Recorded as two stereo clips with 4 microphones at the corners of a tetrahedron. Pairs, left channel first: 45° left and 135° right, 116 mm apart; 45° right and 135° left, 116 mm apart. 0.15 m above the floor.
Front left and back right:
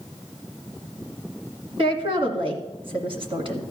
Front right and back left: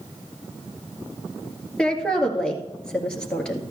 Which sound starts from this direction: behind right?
A woman speaking, at 1.8 s.